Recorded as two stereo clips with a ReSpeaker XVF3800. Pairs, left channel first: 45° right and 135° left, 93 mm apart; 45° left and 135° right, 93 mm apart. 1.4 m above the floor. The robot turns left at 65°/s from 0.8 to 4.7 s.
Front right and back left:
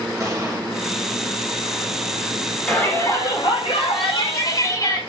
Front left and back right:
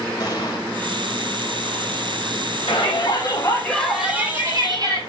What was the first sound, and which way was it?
An explosion, 85° left.